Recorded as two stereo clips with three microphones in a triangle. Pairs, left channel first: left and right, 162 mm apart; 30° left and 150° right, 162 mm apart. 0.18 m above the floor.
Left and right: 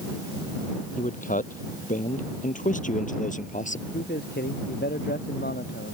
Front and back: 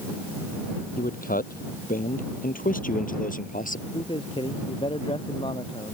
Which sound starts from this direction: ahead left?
A man speaking, at 1.0 s.